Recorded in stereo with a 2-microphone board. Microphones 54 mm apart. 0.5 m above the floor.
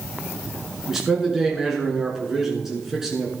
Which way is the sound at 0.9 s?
5° right (ahead or behind).